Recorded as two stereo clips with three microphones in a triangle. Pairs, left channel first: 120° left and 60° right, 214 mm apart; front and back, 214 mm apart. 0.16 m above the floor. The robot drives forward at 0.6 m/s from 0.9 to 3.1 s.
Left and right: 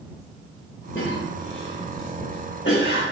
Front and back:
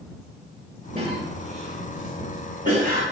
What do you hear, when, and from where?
0.9 s a cough: 135° left, 3 m; by 3.0 s 150° left, 4 m